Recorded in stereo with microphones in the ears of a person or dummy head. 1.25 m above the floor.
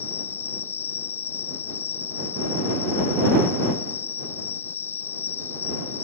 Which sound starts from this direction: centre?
An insect, at 0.0 s.